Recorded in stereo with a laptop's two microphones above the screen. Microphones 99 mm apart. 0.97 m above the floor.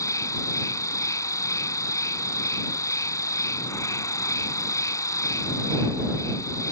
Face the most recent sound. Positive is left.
turn(degrees=30)  # may be behind; listen again after turning